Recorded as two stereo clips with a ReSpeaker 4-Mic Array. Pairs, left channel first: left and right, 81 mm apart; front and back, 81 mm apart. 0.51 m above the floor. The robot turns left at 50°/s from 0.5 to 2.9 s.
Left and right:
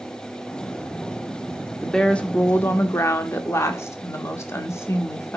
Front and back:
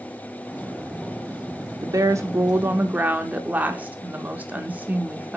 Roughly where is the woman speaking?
Behind.